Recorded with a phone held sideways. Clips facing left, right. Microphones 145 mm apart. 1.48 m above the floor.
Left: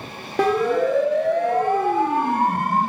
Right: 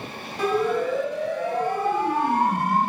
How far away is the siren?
About 3 m.